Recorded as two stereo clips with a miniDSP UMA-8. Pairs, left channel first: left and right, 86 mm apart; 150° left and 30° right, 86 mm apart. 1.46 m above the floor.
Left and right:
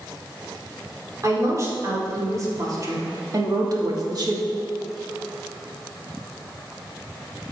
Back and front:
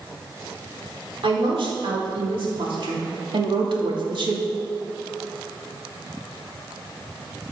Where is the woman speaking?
40° right, 3.5 m; by 4.5 s 55° right, 1.9 m.